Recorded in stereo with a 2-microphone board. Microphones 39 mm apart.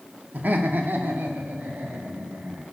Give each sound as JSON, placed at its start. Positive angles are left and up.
{"t": 0.3, "sound": "laughter", "side_deg": -50, "distance_m": 0.5}